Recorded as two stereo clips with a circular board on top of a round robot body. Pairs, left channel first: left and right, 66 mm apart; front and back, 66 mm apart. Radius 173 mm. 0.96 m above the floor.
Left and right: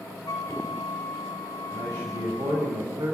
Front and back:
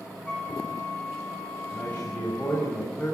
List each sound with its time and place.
0.3 s a flute: 75° left, 3 m
1.7 s a man speaking: 65° right, 5.5 m